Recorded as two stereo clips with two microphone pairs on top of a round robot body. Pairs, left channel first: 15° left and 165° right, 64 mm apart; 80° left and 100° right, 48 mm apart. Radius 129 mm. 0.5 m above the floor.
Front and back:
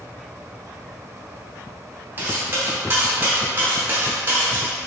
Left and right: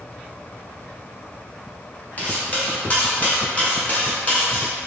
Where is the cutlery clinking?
140° left, 1.0 m.